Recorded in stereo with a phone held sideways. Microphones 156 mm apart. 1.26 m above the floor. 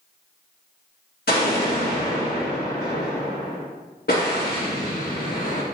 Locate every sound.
1.3 s an explosion: 80° left, 2.5 m